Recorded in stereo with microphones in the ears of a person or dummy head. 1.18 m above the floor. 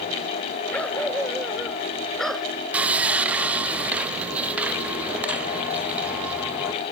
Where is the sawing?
10° right (ahead or behind).